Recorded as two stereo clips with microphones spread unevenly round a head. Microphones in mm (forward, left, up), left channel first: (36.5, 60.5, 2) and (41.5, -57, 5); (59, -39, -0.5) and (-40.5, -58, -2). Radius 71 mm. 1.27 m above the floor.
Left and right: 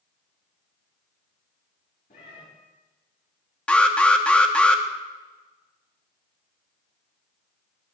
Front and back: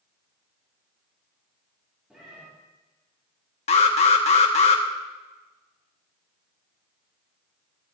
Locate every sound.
2.1 s a cat meowing: 105° left, 4 m
3.7 s an alarm: 15° left, 1.2 m